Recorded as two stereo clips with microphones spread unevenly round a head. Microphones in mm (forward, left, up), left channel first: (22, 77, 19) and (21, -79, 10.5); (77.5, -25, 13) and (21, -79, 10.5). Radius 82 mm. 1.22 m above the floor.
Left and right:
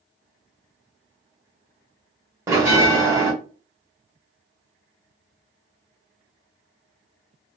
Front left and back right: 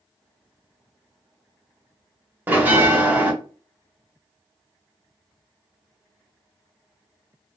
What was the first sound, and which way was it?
A bell, 140° right.